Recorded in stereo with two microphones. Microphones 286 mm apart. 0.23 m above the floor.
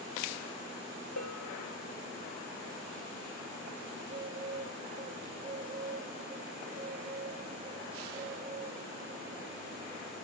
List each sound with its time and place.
1.2 s a bell: 80° left, 1.4 m
4.0 s a bird: 25° right (ahead or behind), 1.0 m